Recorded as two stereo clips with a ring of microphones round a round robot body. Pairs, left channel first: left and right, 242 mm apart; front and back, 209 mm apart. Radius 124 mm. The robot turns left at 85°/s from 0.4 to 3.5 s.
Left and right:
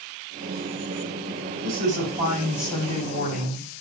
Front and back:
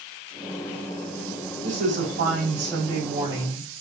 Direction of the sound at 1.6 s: 110° right.